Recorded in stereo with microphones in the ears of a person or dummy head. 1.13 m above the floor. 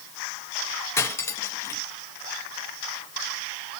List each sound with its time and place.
1.0 s cutlery clinking: 10° left (ahead or behind), 0.7 m